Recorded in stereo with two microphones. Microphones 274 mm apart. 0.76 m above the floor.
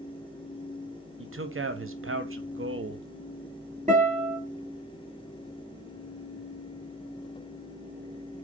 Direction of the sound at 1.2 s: 50° right (ahead or behind).